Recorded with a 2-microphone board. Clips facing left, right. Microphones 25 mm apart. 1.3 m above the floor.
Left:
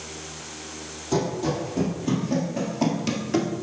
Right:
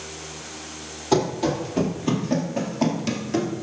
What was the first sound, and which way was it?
Running footsteps, 45° right (ahead or behind).